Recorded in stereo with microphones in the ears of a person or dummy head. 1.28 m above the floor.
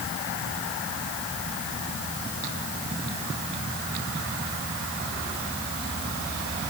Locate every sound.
Only background noise.